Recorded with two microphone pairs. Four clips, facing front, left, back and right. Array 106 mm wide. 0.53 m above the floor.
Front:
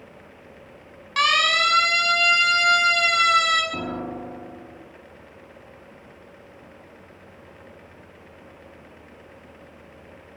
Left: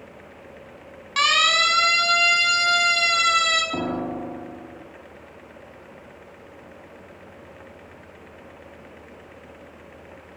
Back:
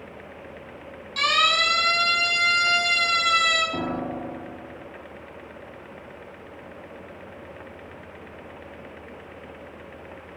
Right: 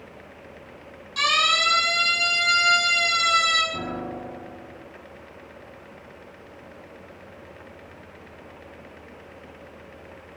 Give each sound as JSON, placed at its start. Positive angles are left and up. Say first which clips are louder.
{"t": 1.2, "sound": "a siren", "louder": "left 2 dB, front 2 dB", "azimuth_deg": 45, "distance_m": 5.5}
{"t": 3.7, "sound": "a piano", "louder": "left 5 dB, back 2 dB", "azimuth_deg": 105, "distance_m": 2.5}